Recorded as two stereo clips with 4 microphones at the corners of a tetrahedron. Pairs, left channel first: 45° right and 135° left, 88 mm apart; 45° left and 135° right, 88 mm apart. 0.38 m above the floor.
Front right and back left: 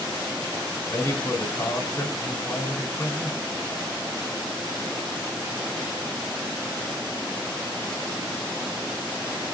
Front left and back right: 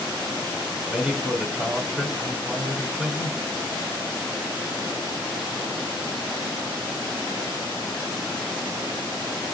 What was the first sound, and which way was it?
A man speaking, 55° right.